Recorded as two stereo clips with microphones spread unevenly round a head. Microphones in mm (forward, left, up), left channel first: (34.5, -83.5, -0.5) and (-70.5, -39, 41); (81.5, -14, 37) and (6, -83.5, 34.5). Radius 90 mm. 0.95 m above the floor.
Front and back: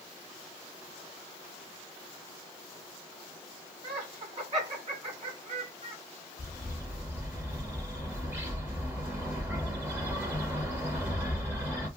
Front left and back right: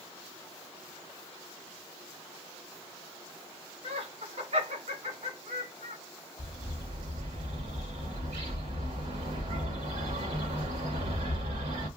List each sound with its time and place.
3.8 s laughter: 165° right, 3.5 m
6.4 s a bird: 140° right, 1.5 m